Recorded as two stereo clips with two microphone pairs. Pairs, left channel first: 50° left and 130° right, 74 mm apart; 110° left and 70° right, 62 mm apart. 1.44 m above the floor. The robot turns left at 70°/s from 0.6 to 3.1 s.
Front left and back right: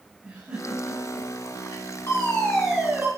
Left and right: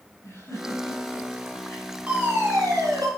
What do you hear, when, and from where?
0.2 s a giggle: 155° left, 9.5 m; by 1.9 s 65° left, 9.5 m
2.1 s a fire alarm: straight ahead, 7 m; by 3.1 s 70° right, 7 m